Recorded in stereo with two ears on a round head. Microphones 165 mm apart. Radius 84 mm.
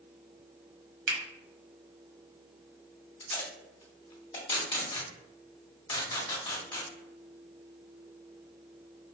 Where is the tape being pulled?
30° left (ahead or behind), 1.3 m.